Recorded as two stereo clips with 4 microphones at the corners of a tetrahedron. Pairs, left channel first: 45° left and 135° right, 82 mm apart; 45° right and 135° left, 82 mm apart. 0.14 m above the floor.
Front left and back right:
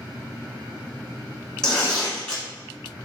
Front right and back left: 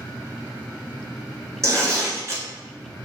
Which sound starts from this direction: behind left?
Tearing paper, at 1.6 s.